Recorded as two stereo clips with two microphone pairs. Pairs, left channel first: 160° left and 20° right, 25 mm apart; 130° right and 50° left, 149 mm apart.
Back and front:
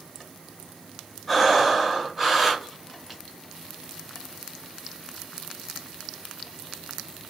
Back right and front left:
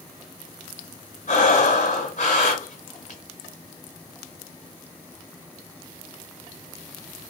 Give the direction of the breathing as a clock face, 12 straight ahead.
4 o'clock.